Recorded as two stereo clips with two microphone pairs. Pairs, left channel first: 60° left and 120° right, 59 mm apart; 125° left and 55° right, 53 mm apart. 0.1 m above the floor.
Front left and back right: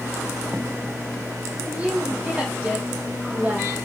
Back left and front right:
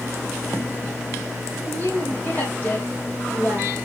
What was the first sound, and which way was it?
A woman speaking, 170° left.